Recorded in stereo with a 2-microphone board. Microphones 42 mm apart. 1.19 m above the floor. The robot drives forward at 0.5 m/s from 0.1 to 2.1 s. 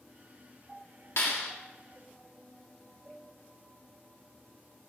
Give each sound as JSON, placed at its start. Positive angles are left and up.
{"t": 1.2, "sound": "a clap", "side_deg": 85, "distance_m": 2.0}